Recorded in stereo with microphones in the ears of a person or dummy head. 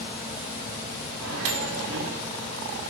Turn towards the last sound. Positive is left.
turn(degrees=-80)